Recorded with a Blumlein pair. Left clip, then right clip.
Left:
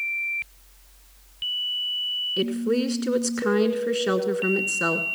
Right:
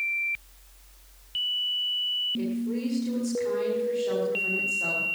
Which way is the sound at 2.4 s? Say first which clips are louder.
Left 8 dB; 55° left.